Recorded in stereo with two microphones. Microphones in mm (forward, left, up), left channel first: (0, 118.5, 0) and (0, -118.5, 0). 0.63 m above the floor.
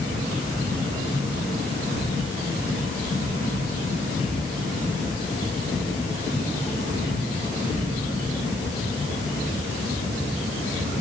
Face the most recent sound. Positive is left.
No sound to turn to.